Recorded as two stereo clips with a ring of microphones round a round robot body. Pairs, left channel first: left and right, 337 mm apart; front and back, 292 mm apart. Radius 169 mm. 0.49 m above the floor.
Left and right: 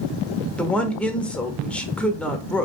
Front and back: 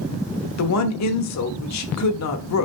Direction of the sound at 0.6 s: 5° left.